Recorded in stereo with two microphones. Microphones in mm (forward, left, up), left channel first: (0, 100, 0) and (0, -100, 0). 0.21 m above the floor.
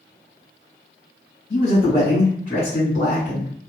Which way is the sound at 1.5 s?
25° left (ahead or behind).